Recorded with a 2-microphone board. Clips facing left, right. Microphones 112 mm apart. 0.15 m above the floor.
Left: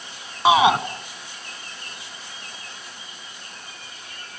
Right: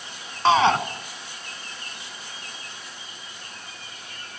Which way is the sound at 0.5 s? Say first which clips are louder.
Left 2 dB; 10° left (ahead or behind).